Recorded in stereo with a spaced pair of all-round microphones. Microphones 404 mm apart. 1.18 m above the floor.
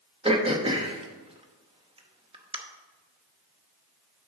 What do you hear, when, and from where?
0.2 s throat clearing: 15° right (ahead or behind), 0.8 m